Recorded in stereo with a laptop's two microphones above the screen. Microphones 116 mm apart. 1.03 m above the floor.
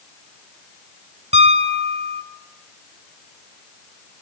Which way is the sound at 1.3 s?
75° right (ahead or behind).